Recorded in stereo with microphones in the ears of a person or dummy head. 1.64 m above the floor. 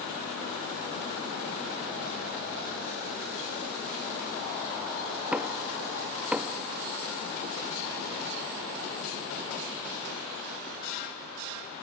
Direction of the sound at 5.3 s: 15° right (ahead or behind).